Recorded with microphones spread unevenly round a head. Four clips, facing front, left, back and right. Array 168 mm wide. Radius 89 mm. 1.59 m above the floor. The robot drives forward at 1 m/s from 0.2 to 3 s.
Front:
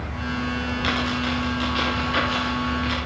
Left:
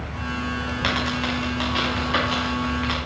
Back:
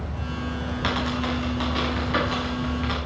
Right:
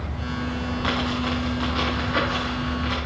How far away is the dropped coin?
About 5.5 m.